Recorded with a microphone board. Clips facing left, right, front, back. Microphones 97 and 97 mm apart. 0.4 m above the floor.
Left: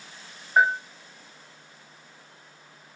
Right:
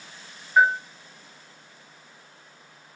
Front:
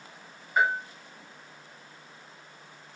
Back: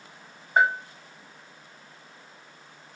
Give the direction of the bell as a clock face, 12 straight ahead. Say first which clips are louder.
Right 2 dB, back 3 dB; 7 o'clock.